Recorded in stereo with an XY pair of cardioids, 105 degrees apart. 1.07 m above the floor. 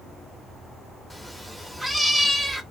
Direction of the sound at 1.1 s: 5° right.